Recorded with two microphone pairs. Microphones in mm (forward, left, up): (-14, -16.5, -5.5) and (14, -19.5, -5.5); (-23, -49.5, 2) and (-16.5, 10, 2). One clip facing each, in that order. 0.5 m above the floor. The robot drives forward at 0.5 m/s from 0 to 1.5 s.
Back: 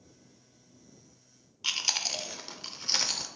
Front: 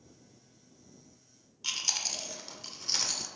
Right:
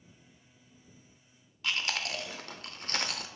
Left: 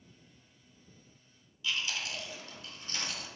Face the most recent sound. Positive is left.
turn(degrees=-120)